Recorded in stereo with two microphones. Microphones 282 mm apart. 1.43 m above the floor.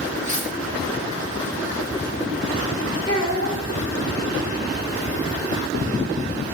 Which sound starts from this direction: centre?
A child speaking, at 3.1 s.